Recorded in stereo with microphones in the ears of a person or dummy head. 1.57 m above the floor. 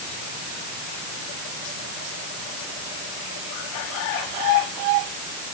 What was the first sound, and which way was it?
Only background noise.